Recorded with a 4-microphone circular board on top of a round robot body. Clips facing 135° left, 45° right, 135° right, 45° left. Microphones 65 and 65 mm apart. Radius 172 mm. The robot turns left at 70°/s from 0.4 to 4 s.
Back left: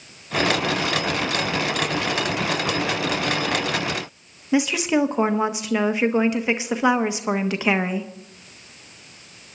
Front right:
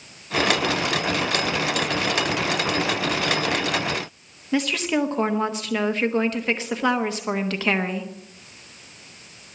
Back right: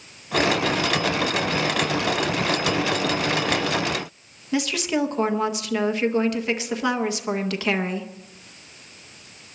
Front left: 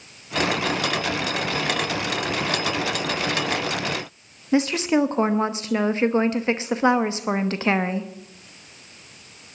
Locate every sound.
4.5 s a woman speaking: 70° left, 1.3 m